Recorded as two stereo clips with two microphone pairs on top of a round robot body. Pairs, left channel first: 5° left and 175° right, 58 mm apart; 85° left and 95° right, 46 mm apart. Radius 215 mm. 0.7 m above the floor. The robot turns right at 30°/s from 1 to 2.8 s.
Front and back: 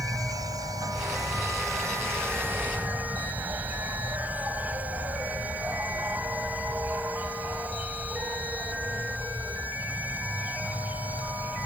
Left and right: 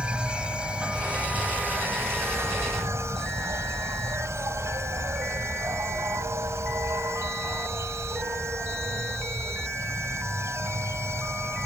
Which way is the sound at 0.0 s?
165° right.